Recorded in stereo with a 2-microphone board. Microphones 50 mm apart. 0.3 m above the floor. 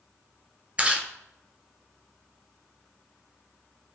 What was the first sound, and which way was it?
Chewing, 25° right (ahead or behind).